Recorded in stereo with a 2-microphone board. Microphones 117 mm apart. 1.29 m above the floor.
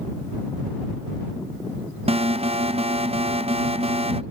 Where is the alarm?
60° right (ahead or behind).